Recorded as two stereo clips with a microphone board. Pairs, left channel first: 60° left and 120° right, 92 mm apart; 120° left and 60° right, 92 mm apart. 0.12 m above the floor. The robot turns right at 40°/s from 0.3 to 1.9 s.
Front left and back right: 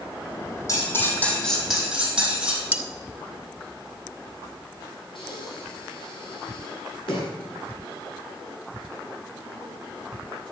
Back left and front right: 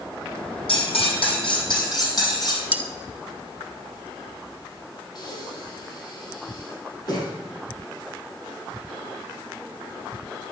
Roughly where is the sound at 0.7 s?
Left.